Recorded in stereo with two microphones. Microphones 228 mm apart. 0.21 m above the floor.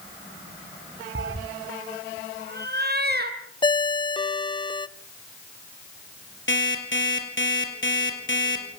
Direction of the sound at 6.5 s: 55° left (ahead or behind).